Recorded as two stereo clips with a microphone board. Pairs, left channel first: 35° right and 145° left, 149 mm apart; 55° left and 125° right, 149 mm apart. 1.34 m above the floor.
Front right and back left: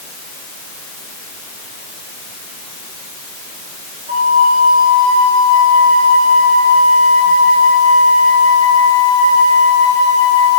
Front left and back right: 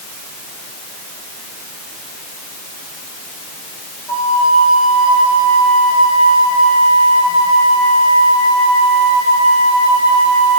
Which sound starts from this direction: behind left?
A flute, at 4.1 s.